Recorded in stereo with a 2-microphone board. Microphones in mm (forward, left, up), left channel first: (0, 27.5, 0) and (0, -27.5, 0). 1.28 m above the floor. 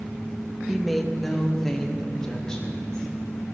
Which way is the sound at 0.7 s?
5° right (ahead or behind).